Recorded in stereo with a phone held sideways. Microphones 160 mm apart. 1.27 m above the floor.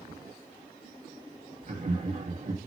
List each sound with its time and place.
1.6 s laughter: 55° right (ahead or behind), 2 m